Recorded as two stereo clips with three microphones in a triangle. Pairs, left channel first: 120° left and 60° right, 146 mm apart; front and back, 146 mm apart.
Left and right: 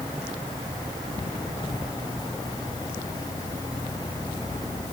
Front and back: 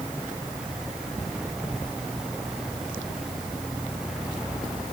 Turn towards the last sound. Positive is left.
No sound to turn to.